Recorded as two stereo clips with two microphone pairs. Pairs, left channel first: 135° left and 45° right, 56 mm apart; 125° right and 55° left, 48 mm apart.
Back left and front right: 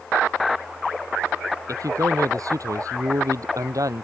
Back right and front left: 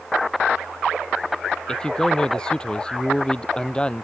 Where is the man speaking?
50° right; by 4.0 s 55° right.